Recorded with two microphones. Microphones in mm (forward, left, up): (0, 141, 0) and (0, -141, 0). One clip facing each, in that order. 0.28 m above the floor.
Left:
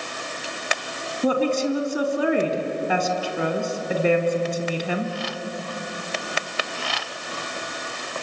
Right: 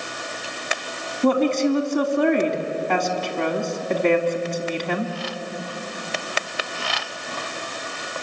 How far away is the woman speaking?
About 2.5 m.